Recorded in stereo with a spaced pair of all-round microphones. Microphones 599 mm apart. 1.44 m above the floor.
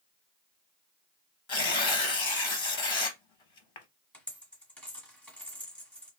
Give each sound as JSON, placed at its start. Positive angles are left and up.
{"t": 1.5, "sound": "tearing paper", "side_deg": 50, "distance_m": 0.8}
{"t": 4.1, "sound": "a dropped coin", "side_deg": 5, "distance_m": 1.4}